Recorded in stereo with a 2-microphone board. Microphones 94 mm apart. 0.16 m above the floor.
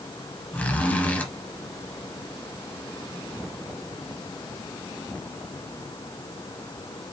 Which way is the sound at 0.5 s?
20° left (ahead or behind).